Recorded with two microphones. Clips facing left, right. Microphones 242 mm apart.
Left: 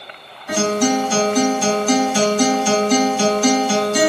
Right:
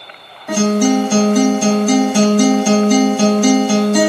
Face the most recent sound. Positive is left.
turn(degrees=-60)  # may be behind; listen again after turning